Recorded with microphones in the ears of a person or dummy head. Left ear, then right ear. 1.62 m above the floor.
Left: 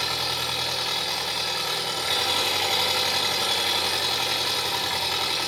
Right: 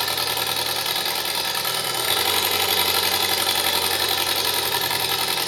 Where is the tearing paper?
I don't hear tearing paper.